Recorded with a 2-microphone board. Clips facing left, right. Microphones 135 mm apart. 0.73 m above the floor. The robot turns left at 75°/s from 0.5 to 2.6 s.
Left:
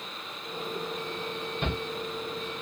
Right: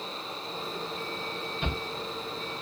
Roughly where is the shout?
Left.